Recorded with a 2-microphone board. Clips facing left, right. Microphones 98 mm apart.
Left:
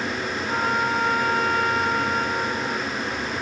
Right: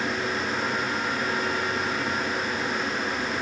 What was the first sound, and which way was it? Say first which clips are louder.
A trumpet: left 5 dB; 80° left.